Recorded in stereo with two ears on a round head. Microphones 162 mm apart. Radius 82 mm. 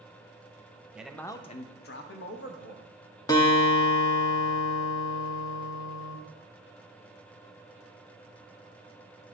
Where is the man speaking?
5° right (ahead or behind), 0.7 m; by 2.9 s 60° left (ahead or behind), 1.5 m.